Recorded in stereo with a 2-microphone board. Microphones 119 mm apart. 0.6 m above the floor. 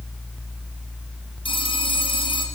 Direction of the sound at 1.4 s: 45° left (ahead or behind).